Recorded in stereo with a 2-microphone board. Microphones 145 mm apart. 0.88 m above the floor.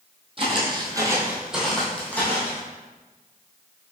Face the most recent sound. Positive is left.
turn(degrees=15)  # may be behind; listen again after turning